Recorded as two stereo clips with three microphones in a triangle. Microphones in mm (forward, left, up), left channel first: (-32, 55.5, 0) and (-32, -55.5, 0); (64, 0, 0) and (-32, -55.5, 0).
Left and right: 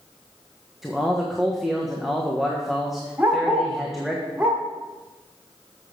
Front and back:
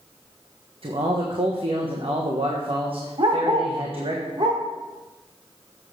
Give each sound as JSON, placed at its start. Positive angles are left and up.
{"t": 0.8, "sound": "a man speaking", "azimuth_deg": 180, "distance_m": 1.2}
{"t": 3.2, "sound": "a dog barking", "azimuth_deg": -165, "distance_m": 1.7}